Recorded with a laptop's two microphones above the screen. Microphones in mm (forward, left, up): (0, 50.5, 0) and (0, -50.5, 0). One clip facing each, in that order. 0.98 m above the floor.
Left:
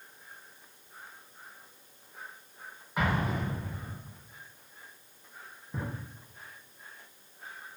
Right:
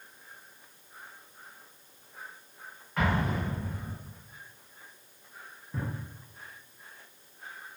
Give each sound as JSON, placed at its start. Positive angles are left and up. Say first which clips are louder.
{"t": 3.0, "sound": "an explosion", "louder": "right 1 dB", "side_deg": 15, "distance_m": 0.8}
{"t": 5.7, "sound": "a drawer", "louder": "right 1 dB", "side_deg": 10, "distance_m": 0.6}